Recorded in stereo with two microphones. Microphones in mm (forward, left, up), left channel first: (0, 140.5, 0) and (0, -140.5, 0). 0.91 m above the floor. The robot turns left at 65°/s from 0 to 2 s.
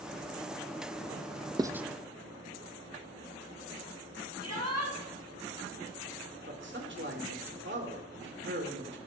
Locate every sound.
1.6 s writing: 15° right (ahead or behind), 0.7 m; by 1.9 s centre (ahead or behind), 0.7 m
4.4 s a shout: 75° right (ahead or behind), 6.5 m
6.5 s a man speaking: 45° right (ahead or behind), 3 m